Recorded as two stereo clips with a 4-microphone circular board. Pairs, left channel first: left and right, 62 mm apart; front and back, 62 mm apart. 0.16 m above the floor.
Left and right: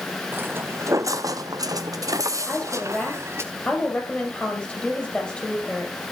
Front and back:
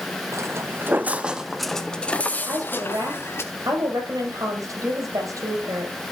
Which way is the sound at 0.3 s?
145° right.